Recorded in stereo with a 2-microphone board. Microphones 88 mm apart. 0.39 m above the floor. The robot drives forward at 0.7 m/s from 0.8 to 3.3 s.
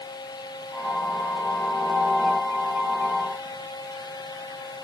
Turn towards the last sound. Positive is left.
No sound to turn to.